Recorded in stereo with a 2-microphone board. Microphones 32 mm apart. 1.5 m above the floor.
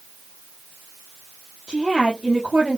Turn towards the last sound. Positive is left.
turn(degrees=-40)  # may be behind; listen again after turning